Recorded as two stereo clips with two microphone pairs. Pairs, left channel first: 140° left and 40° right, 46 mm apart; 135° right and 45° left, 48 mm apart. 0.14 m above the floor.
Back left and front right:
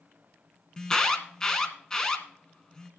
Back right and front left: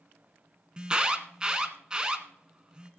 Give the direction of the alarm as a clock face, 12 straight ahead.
9 o'clock.